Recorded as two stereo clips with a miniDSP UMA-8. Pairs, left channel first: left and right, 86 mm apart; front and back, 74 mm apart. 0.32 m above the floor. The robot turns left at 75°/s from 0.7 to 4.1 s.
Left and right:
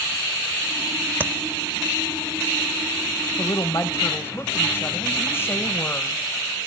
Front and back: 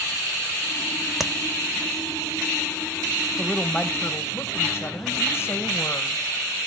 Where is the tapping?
100° right, 0.6 m; by 1.3 s 105° right, 0.6 m.